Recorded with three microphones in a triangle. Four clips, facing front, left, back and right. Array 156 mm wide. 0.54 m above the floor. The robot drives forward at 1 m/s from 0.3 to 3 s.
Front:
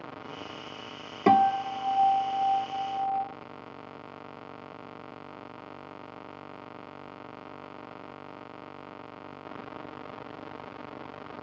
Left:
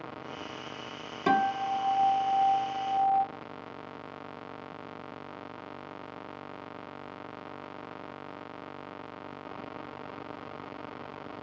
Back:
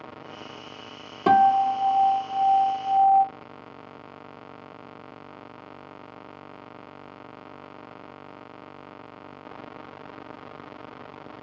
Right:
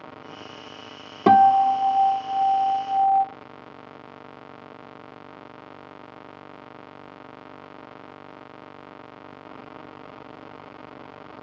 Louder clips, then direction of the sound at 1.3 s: Right 12 dB, back 4 dB; 80° right.